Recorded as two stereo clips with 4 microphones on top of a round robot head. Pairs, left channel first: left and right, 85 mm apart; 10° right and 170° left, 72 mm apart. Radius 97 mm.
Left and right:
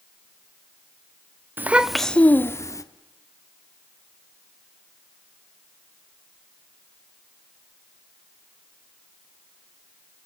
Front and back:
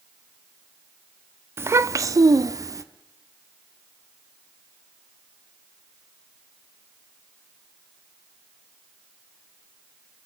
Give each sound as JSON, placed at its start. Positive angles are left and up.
{"t": 1.6, "sound": "a child speaking", "azimuth_deg": -150, "distance_m": 1.0}